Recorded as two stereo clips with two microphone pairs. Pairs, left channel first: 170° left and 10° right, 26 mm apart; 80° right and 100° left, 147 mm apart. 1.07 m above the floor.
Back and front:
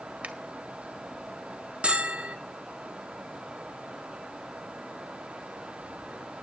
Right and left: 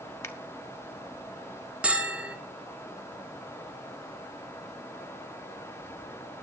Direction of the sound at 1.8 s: 15° left.